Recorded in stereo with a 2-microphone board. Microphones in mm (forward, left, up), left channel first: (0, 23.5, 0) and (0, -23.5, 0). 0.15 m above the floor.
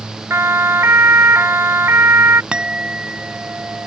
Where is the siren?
70° right (ahead or behind); by 2.4 s 65° right (ahead or behind).